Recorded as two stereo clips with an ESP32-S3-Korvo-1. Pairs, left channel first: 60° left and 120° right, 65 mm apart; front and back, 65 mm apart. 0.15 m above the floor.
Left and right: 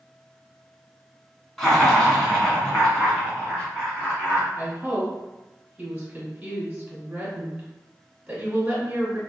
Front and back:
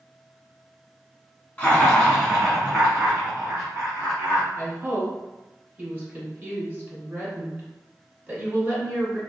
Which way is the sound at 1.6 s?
15° right.